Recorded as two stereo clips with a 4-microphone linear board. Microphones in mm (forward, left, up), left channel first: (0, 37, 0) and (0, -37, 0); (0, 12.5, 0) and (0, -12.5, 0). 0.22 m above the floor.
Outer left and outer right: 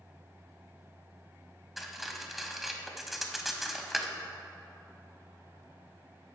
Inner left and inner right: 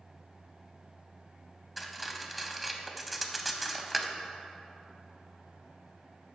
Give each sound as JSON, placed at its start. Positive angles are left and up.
{"t": 1.8, "sound": "cutlery clinking", "side_deg": 0, "distance_m": 0.6}